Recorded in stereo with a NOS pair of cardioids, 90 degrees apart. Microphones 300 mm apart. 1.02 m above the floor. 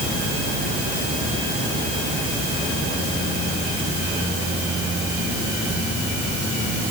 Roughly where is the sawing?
No sawing in this recording.